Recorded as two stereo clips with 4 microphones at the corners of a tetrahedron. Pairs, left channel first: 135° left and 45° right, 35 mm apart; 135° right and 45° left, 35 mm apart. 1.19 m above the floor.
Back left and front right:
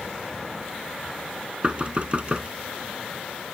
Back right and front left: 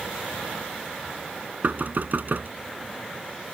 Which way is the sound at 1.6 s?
15° left.